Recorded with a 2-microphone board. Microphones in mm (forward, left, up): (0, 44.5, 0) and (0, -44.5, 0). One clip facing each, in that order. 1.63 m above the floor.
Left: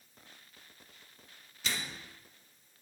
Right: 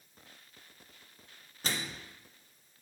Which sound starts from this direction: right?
A microwave, at 1.6 s.